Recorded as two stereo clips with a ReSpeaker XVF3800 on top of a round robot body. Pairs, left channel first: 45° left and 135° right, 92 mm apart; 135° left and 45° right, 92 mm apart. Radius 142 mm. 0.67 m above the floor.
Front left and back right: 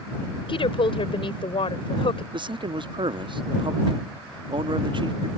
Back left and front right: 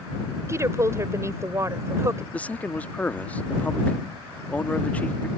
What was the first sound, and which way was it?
A woman speaking, 15° left.